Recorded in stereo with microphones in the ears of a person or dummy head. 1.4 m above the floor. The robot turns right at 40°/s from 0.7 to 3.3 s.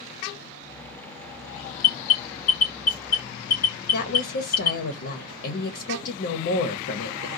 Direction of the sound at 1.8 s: 65° left (ahead or behind).